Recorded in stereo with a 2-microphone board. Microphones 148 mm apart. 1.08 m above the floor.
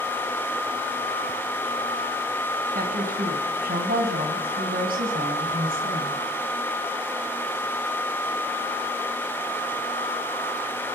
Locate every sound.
2.8 s a woman speaking: 80° right, 7.5 m